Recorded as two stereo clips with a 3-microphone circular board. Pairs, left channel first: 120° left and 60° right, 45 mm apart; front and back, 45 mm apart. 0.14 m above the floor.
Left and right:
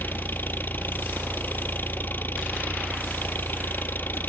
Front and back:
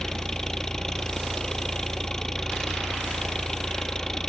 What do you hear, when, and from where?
0.0 s an engine running: 80° left, 1.0 m